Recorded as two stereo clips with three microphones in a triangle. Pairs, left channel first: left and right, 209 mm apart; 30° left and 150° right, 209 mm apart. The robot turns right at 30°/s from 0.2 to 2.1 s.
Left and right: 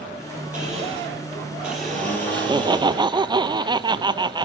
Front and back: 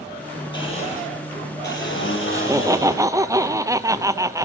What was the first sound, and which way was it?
A blender, 40° right.